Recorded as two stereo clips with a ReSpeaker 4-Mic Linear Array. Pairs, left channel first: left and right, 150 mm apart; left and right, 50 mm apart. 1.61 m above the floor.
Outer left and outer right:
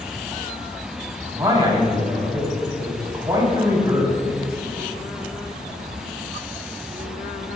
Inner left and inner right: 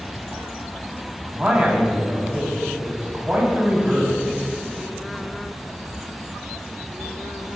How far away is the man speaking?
About 3.5 m.